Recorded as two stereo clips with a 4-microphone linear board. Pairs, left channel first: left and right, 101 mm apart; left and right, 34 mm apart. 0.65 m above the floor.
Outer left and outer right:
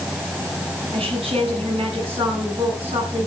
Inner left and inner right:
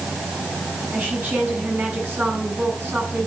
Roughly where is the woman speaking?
Right.